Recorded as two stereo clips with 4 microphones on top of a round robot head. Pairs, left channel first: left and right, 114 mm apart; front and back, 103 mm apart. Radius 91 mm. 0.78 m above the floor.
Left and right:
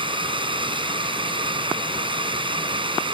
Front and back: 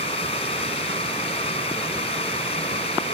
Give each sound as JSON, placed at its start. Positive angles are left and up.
{"t": 0.0, "sound": "a drone", "azimuth_deg": -45}